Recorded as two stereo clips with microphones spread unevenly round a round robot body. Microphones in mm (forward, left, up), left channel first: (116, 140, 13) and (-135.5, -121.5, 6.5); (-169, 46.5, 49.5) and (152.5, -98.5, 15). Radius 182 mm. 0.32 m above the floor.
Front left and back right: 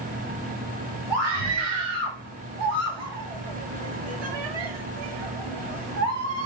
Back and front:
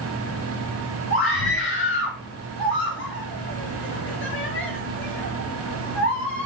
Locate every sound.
1.1 s a scream: 145° right, 6.5 m